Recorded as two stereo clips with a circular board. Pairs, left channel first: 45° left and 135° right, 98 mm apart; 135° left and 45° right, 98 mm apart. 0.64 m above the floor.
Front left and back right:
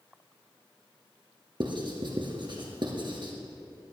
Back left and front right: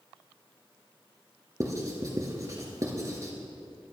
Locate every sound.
1.6 s writing: 100° right, 2.5 m